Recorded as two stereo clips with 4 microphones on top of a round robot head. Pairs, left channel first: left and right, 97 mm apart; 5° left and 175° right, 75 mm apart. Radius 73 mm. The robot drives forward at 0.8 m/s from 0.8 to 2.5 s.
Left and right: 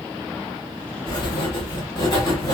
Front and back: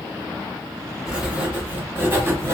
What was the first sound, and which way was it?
Writing, 105° left.